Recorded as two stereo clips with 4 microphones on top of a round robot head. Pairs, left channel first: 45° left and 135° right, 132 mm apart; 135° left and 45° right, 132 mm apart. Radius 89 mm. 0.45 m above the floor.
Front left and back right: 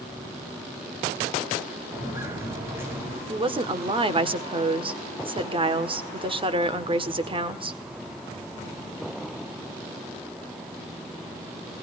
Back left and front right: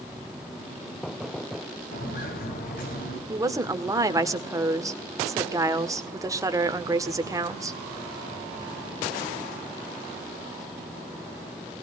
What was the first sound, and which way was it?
Footsteps, 150° left.